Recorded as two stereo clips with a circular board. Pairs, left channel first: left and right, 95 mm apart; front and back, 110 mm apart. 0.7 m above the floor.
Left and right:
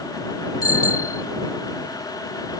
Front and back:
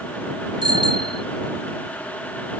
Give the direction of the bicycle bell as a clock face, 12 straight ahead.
7 o'clock.